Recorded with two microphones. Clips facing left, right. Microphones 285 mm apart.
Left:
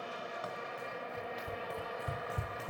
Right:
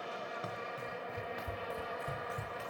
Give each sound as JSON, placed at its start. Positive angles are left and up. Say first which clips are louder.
{"t": 0.4, "sound": "running footsteps", "louder": "even", "side_deg": -25, "distance_m": 3.0}